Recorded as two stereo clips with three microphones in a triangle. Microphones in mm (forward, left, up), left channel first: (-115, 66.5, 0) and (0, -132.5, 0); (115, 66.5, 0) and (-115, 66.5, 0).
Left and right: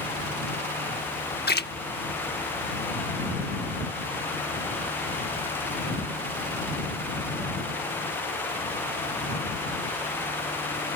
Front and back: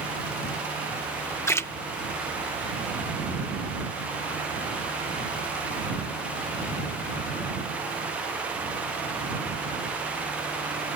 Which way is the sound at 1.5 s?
80° left.